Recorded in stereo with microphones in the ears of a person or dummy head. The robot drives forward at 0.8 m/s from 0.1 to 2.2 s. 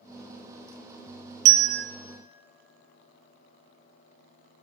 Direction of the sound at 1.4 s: 40° right (ahead or behind).